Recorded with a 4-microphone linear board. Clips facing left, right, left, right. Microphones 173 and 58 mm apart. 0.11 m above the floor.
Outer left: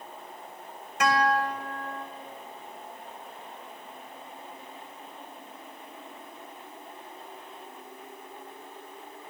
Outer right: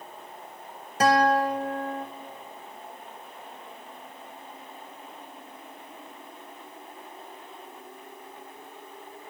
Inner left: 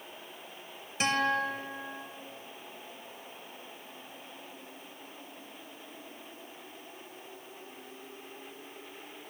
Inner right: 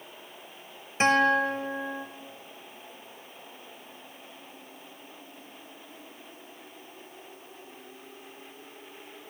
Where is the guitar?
35° right (ahead or behind), 1.2 m.